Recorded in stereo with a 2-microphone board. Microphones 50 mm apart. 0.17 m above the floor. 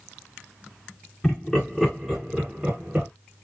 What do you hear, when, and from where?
1.2 s laughter: 15° left (ahead or behind), 1.8 m; by 3.1 s 30° right (ahead or behind), 1.8 m